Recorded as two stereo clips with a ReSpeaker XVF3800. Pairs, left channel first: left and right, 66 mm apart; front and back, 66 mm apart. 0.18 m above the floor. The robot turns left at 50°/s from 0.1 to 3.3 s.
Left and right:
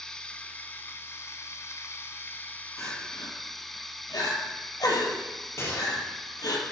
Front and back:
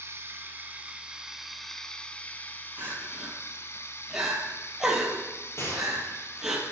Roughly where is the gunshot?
Ahead left.